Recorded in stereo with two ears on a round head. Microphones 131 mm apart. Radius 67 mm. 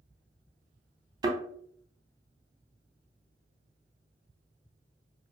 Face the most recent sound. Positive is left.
turn(degrees=-25)  # may be behind; listen again after turning